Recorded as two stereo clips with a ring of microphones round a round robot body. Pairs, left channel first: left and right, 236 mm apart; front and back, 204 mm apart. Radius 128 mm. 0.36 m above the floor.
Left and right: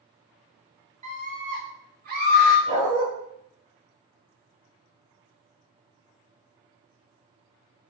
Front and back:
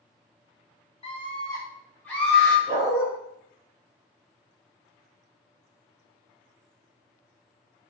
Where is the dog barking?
105° right, 2 m.